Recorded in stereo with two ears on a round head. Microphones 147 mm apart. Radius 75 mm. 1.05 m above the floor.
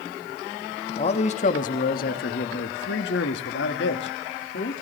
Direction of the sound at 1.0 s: 40° left (ahead or behind).